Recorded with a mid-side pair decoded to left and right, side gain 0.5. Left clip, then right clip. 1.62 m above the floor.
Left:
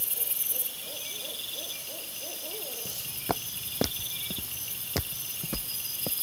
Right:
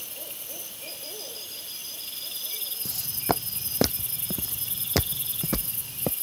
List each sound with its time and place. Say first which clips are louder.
2.9 s footsteps: right 5 dB; 30° right; by 6.1 s 50° right